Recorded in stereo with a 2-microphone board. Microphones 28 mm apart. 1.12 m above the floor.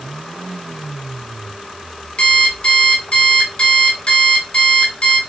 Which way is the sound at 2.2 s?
50° left (ahead or behind).